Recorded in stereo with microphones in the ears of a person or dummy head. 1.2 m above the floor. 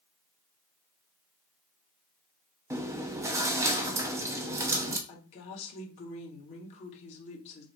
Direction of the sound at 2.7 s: 15° right (ahead or behind).